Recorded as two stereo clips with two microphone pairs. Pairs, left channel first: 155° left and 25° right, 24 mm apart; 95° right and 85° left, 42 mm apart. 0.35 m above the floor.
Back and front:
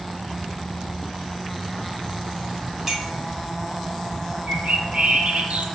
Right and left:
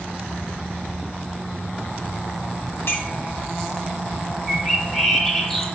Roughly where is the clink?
Right.